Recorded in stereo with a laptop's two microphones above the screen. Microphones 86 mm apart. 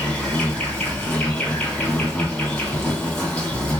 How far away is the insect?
About 2.5 m.